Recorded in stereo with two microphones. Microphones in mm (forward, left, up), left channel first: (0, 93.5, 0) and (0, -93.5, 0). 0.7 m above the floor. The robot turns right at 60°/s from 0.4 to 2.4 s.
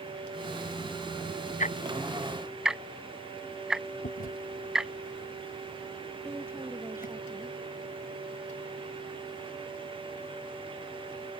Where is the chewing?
50° left (ahead or behind).